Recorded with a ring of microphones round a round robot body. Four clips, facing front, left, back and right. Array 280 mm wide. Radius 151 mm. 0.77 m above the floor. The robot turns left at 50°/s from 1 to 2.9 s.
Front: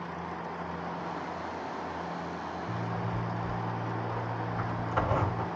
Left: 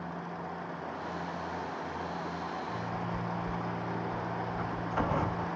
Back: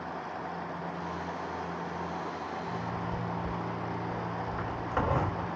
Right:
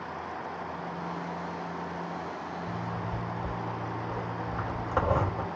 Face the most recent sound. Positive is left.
turn(degrees=-105)